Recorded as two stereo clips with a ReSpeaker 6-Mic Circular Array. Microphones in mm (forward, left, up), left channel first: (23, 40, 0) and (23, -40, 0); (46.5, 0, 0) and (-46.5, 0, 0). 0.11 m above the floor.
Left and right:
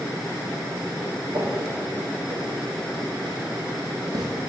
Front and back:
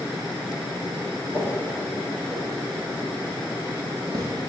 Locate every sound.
1.3 s footsteps: 70° right, 2 m; by 4.3 s 130° right, 1.5 m